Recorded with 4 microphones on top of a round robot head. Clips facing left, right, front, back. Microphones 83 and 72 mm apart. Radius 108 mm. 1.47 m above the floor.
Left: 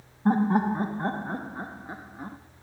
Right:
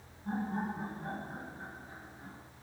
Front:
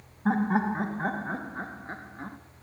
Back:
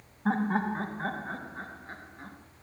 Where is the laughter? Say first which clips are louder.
Left 13 dB, front 3 dB; 85° left, 1.6 m; by 2.4 s 60° left, 2.5 m.